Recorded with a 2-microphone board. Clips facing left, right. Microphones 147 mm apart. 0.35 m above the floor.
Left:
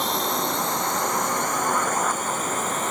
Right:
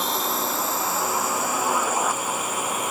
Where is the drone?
Centre (ahead or behind); by 2.9 s 10° right (ahead or behind).